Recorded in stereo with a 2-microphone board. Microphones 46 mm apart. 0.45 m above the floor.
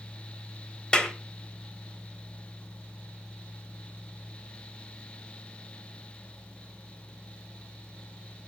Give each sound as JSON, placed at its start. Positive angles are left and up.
{"t": 0.9, "sound": "a clap", "side_deg": 20, "distance_m": 1.9}